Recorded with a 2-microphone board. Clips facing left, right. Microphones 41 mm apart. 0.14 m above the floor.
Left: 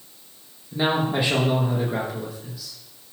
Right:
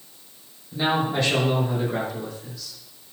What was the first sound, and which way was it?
A man speaking, 20° left (ahead or behind).